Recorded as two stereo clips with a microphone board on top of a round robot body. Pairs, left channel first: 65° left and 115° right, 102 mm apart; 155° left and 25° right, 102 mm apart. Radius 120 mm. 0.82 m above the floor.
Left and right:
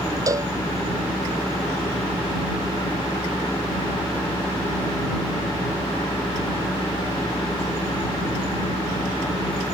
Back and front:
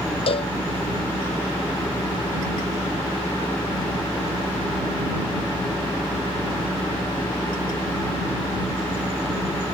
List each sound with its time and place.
0.3 s a cowbell: 170° right